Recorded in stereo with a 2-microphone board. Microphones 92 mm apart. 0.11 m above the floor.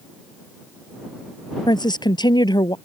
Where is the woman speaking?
55° left (ahead or behind).